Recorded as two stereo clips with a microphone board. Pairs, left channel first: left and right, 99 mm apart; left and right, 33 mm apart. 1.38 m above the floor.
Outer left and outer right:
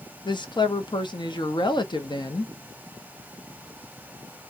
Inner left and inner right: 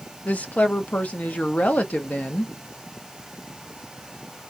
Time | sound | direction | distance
0.2 | a woman speaking | 50° left (ahead or behind) | 0.6 m